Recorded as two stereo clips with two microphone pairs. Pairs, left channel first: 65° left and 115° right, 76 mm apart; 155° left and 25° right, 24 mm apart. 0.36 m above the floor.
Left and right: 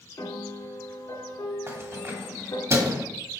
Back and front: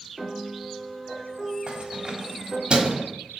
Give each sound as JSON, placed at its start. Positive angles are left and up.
{"t": 0.2, "sound": "a piano", "azimuth_deg": 60, "distance_m": 2.5}
{"t": 1.7, "sound": "keys jangling", "azimuth_deg": -65, "distance_m": 1.3}